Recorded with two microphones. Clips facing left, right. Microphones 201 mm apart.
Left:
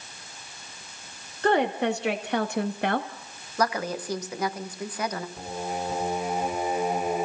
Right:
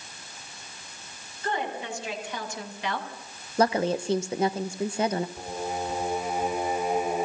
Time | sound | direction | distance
1.4 | a woman speaking | 75° left (ahead or behind) | 2.5 m
3.6 | a woman speaking | 25° right (ahead or behind) | 1.4 m
5.4 | singing | centre (ahead or behind) | 4 m